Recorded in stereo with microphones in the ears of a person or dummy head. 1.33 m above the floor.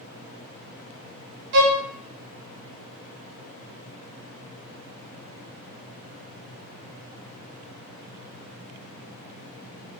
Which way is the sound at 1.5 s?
65° right (ahead or behind).